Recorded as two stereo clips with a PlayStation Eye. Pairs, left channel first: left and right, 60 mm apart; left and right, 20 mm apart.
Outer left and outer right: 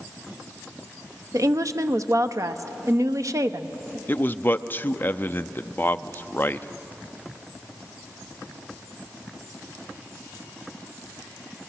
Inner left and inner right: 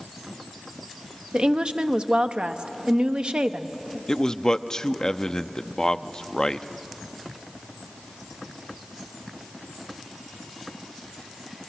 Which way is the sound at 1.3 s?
60° right (ahead or behind).